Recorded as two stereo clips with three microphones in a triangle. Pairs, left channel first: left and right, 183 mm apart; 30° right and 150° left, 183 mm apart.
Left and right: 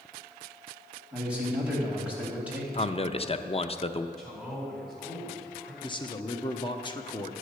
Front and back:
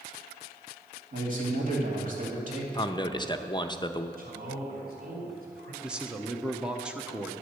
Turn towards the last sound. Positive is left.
turn(degrees=70)